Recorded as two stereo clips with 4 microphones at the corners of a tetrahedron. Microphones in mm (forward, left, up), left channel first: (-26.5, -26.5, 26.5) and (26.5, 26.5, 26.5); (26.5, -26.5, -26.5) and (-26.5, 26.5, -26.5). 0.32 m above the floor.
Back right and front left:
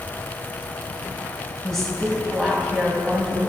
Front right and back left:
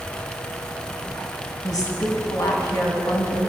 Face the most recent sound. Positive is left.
turn(degrees=-50)